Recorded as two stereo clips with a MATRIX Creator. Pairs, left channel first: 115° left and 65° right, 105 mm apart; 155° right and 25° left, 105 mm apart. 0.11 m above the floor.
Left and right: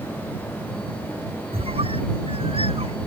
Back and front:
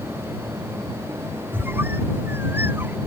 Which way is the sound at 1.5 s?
45° right.